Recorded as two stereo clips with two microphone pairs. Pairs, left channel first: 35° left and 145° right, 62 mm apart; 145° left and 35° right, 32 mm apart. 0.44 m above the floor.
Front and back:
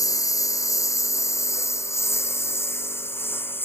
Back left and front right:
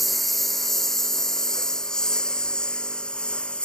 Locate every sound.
0.0 s a lawn mower: 55° left; by 3.6 s 85° left